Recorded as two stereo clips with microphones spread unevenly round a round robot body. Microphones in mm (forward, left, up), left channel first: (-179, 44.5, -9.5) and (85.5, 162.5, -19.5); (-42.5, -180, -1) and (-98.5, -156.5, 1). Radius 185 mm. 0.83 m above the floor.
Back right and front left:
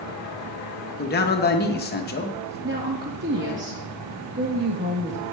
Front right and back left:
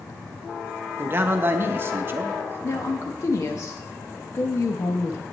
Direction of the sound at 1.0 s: Straight behind.